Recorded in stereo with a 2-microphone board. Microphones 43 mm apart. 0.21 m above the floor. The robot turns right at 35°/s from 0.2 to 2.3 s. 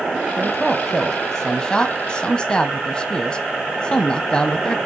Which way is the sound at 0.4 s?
Centre (ahead or behind).